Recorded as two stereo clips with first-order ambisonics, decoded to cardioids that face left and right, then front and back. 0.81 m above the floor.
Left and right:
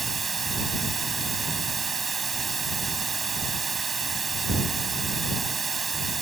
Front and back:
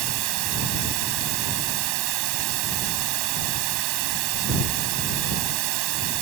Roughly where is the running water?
Behind.